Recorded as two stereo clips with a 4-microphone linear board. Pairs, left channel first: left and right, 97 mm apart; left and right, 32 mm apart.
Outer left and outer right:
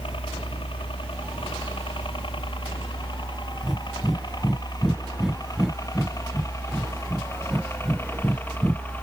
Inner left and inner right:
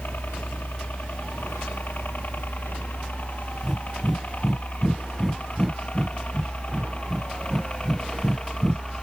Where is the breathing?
5° right (ahead or behind).